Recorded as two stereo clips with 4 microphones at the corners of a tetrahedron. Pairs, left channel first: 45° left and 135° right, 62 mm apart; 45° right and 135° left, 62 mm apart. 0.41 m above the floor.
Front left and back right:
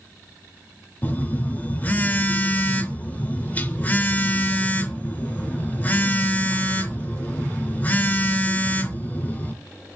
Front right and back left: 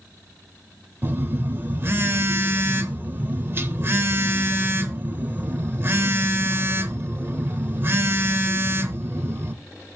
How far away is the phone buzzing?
About 0.7 m.